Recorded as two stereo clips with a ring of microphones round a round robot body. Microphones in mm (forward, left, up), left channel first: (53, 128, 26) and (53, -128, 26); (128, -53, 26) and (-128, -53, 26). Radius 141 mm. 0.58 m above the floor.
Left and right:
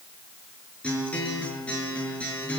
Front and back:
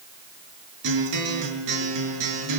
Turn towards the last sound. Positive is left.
turn(degrees=175)